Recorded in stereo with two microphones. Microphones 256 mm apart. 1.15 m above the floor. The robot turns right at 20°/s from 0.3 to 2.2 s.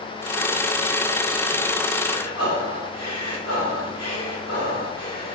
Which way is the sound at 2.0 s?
75° left (ahead or behind).